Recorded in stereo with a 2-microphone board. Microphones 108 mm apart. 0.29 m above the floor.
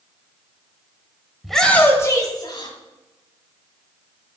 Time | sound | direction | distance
1.4 | a shout | centre (ahead or behind) | 1.5 m